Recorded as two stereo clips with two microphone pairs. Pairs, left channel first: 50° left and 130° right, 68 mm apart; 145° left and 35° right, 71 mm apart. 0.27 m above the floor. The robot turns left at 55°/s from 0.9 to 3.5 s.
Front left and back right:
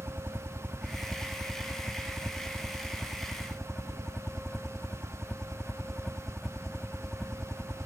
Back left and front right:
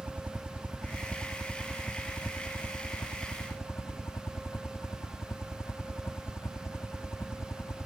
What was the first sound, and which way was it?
A helicopter, 85° right.